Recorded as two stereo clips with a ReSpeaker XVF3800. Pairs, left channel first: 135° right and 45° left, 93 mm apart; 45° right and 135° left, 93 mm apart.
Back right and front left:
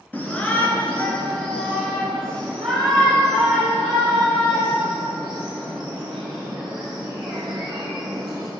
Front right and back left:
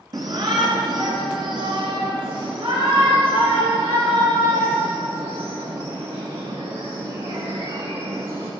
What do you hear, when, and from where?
0.1 s a shout: 155° left, 1.7 m; by 8.5 s 135° left, 5.5 m